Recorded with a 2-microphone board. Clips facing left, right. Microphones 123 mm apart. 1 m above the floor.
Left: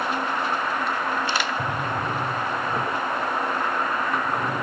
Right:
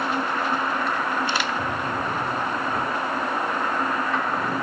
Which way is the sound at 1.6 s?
10° left (ahead or behind).